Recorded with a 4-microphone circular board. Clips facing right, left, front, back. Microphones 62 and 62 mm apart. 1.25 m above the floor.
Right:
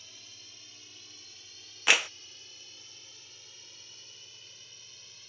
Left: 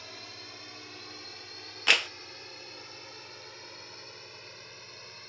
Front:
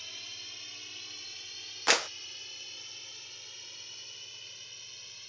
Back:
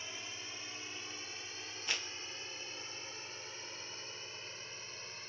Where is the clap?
5° right.